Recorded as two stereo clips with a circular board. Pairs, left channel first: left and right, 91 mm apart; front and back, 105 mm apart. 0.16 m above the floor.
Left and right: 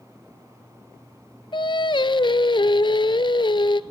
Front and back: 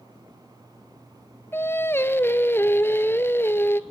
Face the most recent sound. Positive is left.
turn(degrees=65)